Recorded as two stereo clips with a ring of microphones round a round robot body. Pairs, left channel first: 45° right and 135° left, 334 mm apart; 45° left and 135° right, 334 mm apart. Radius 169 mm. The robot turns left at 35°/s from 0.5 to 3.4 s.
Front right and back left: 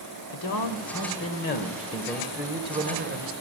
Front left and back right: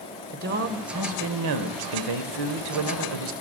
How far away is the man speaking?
About 2.0 m.